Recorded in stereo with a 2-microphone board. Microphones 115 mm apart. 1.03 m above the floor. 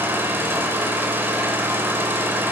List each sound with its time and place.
0.0 s an engine running: 20° right (ahead or behind), 4 m